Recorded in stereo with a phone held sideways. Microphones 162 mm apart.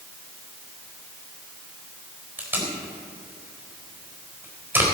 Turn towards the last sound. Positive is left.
turn(degrees=-15)  # may be behind; listen again after turning